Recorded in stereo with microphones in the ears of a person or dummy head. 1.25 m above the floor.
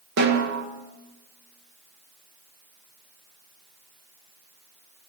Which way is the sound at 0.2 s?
55° right (ahead or behind).